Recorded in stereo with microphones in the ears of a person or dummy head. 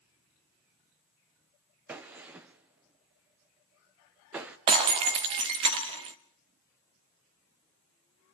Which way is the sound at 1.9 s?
10° right (ahead or behind).